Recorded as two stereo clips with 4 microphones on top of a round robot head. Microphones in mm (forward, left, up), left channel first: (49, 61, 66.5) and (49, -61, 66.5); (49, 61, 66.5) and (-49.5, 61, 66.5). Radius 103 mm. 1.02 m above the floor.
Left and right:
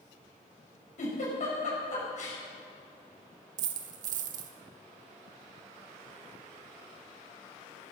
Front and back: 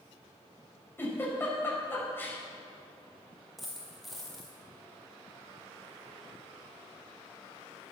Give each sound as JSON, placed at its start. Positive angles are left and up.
{"t": 1.0, "sound": "a giggle", "azimuth_deg": 70, "distance_m": 5.0}
{"t": 3.6, "sound": "a dropped coin", "azimuth_deg": -90, "distance_m": 0.6}